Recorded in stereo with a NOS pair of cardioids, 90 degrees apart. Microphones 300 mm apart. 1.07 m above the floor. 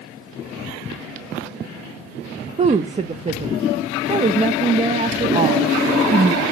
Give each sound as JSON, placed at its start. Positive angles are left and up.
{"t": 2.6, "sound": "a woman speaking", "azimuth_deg": -20, "distance_m": 0.6}